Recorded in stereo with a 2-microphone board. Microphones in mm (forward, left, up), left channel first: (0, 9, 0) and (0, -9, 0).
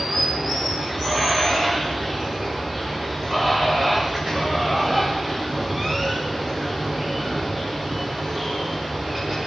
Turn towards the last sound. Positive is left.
turn(degrees=-25)  # may be behind; listen again after turning